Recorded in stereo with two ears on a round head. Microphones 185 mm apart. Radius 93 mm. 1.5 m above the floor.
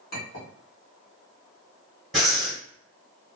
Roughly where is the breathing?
Centre.